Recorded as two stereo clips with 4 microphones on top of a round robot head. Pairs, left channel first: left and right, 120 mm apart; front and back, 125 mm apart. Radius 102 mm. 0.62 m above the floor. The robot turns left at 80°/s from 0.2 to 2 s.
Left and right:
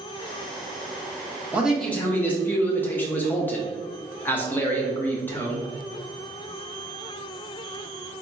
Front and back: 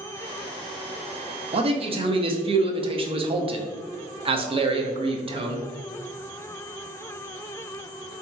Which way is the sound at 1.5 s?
165° right.